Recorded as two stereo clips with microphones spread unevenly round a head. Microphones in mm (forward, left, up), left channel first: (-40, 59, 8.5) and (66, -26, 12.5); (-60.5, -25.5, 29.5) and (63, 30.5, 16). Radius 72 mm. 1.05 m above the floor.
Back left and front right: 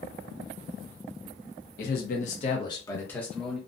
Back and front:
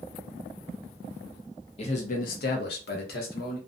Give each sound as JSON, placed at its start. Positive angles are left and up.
{"t": 1.8, "sound": "a man speaking", "azimuth_deg": 155, "distance_m": 0.7}